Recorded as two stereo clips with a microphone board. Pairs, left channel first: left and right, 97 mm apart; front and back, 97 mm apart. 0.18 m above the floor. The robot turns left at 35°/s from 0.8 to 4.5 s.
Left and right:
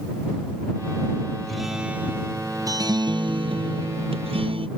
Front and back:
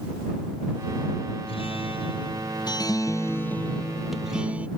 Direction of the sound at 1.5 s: Straight ahead.